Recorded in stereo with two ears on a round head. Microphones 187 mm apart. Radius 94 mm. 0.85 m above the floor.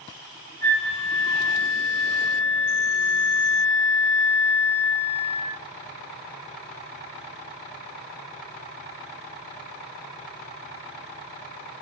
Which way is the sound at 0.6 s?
70° left (ahead or behind).